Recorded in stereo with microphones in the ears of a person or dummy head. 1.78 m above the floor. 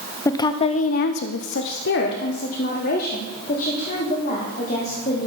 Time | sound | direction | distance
0.2 | a woman speaking | 15° left (ahead or behind) | 0.8 m